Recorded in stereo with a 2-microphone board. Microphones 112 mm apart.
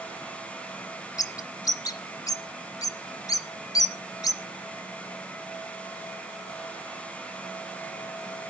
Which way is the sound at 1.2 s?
30° left (ahead or behind).